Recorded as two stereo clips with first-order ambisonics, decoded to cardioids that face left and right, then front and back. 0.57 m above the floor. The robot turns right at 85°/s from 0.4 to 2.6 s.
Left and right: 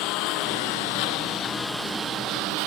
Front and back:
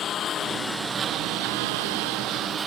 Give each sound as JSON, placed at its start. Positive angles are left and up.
{"t": 0.0, "sound": "a lawn mower", "azimuth_deg": 60}